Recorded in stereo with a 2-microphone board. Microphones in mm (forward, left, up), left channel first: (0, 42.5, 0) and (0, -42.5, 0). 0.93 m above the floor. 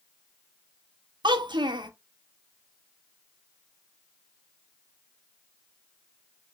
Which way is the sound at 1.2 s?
70° right (ahead or behind).